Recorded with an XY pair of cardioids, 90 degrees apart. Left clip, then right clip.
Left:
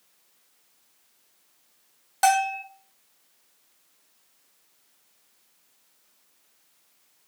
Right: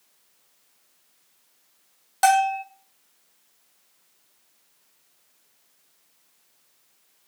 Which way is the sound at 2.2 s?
10° right.